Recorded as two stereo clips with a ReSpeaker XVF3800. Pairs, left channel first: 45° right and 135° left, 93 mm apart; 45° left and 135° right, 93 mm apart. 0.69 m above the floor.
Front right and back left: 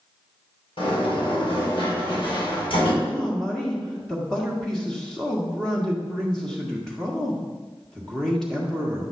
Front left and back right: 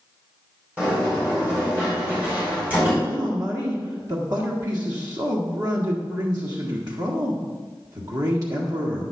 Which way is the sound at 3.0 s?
125° right.